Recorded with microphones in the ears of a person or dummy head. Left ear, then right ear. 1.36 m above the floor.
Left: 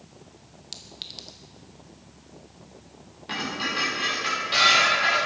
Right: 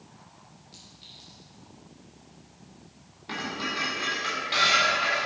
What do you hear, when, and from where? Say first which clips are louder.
0.7 s a clink: left 11 dB; 60° left (ahead or behind), 0.8 m
3.3 s dishes clattering: left 3 dB; 5° right (ahead or behind), 3 m